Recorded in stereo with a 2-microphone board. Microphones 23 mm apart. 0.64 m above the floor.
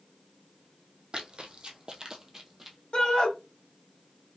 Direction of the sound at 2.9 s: 45° left (ahead or behind).